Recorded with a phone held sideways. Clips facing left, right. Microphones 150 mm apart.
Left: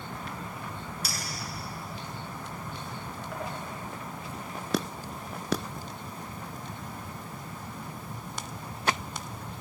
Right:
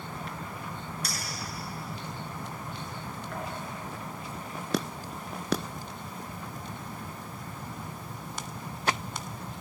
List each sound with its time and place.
1.0 s a clink: 5° left (ahead or behind), 8.5 m